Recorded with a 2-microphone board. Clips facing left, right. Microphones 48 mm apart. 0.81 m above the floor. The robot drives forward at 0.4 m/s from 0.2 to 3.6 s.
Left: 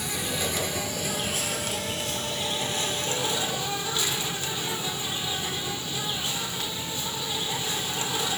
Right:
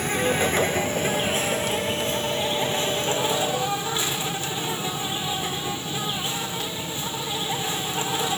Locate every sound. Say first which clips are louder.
0.0 s an insect: right 8 dB; 45° right (ahead or behind), 1.2 m; by 8.4 s 25° right (ahead or behind), 2 m